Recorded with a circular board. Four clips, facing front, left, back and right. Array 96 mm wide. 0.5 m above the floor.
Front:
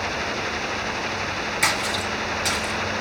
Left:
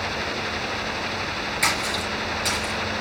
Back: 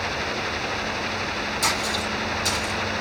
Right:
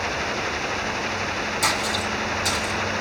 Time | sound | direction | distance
1.6 | a splash | 30° left | 2.5 m